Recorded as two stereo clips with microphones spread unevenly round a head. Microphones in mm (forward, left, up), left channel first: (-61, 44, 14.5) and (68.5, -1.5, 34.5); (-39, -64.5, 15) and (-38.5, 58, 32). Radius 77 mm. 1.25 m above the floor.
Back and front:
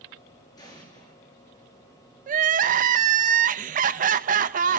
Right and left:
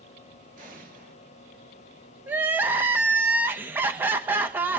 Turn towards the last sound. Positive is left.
turn(degrees=10)